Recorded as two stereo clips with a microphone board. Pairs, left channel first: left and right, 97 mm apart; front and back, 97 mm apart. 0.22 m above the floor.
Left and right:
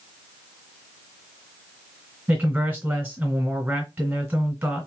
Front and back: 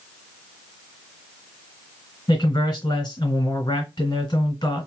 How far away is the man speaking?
About 2 m.